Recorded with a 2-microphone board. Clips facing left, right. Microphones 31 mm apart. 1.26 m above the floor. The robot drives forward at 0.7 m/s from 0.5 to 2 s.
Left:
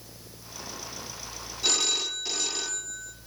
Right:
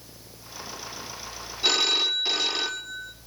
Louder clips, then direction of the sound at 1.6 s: Right 5 dB; 25° right (ahead or behind).